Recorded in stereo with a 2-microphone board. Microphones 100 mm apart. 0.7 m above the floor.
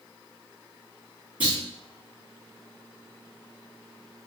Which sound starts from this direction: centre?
A clunk, at 1.4 s.